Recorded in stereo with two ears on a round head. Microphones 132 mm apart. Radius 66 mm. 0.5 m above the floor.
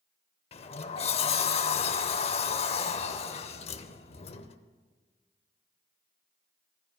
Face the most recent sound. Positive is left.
turn(degrees=45)  # may be behind; listen again after turning